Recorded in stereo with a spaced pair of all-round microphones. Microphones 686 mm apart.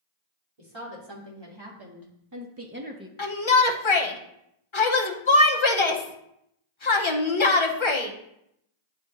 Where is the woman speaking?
40° right (ahead or behind), 2.5 m; by 3.1 s 5° right (ahead or behind), 0.8 m.